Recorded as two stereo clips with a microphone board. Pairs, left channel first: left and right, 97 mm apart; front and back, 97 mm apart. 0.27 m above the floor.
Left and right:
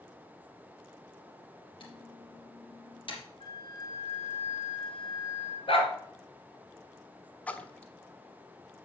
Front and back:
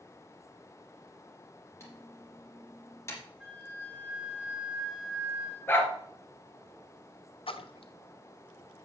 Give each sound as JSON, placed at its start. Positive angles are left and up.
{"t": 1.8, "sound": "typing on a keyboard", "azimuth_deg": 60, "distance_m": 4.5}
{"t": 3.4, "sound": "a flute", "azimuth_deg": 100, "distance_m": 3.5}
{"t": 5.7, "sound": "a dog barking", "azimuth_deg": 70, "distance_m": 2.5}
{"t": 7.5, "sound": "a splash", "azimuth_deg": 15, "distance_m": 0.9}